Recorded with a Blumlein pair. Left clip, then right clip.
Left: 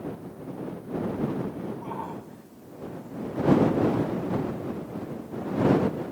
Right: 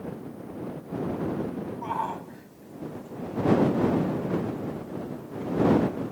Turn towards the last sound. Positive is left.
turn(degrees=-30)